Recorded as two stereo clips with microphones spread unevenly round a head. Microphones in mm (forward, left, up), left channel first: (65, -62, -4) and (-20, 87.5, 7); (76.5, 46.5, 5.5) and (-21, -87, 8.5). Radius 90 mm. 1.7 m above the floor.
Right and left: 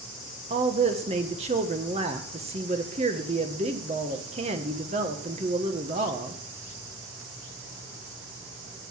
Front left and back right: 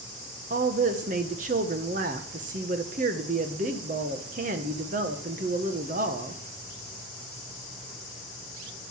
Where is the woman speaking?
Straight behind, 1.5 m.